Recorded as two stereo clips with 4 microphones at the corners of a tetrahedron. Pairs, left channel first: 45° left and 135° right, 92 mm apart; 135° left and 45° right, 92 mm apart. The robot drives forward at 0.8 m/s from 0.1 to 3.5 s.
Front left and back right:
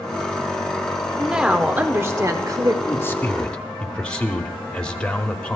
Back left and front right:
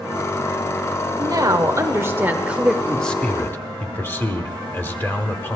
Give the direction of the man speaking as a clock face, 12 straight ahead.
10 o'clock.